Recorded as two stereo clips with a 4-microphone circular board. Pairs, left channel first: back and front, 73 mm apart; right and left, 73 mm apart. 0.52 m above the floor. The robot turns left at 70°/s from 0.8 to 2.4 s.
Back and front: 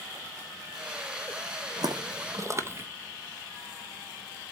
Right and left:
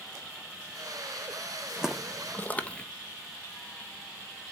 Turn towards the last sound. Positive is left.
turn(degrees=-25)